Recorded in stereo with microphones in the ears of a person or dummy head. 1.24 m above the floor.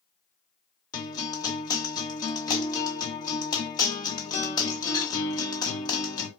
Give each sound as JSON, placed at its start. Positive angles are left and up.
{"t": 0.9, "sound": "a guitar", "side_deg": 20, "distance_m": 0.6}